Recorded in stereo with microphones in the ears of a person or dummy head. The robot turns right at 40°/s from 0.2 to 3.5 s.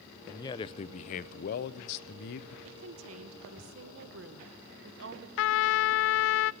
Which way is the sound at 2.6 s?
110° right.